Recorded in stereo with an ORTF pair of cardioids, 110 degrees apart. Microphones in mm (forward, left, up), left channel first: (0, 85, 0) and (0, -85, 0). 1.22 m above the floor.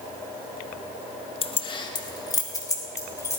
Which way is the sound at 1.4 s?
35° left.